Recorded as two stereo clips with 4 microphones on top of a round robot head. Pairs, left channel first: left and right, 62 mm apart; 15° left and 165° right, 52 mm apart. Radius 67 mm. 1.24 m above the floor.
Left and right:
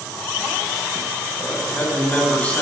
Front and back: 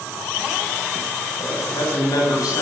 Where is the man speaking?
20° left, 8 m.